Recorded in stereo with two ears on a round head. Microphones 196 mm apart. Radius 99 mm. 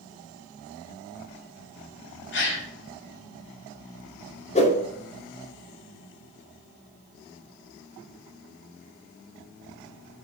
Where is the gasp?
60° left (ahead or behind), 2.5 m.